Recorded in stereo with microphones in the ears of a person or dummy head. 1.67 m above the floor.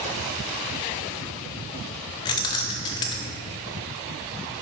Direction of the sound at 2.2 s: 25° left (ahead or behind).